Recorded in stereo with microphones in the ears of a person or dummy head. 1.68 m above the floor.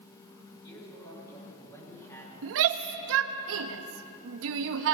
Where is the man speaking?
30° left (ahead or behind), 6 m; by 3.0 s 15° left (ahead or behind), 5.5 m.